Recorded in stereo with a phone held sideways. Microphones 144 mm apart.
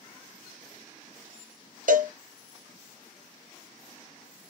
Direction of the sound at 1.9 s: 65° right (ahead or behind).